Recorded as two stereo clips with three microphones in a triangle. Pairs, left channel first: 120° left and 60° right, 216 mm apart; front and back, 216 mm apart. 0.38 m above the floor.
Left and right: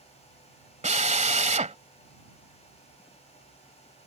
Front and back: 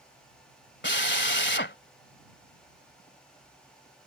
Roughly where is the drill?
Ahead.